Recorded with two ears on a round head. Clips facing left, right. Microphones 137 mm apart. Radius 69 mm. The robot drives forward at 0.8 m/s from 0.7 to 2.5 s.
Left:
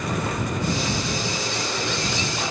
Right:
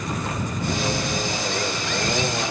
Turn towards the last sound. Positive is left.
No sound to turn to.